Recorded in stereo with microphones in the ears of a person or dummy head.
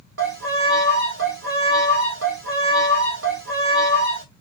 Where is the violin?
65° right (ahead or behind), 1.8 m.